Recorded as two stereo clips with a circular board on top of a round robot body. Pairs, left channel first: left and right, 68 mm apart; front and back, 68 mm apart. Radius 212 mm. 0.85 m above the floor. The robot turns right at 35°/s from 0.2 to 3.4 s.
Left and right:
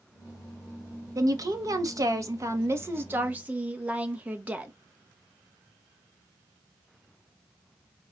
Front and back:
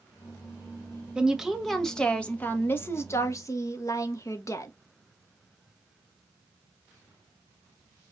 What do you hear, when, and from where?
1.1 s a woman speaking: 105° right, 1.0 m; by 4.7 s 25° right, 1.0 m